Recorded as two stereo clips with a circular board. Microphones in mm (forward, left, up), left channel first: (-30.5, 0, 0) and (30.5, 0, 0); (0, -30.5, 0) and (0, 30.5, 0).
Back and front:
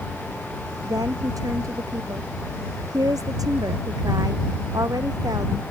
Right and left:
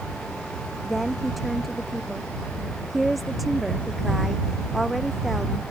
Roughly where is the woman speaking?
Ahead.